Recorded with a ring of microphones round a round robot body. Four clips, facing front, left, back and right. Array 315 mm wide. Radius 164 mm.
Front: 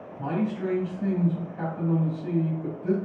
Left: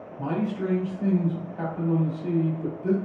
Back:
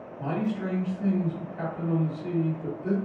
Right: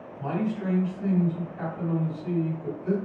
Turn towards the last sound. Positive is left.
turn(degrees=125)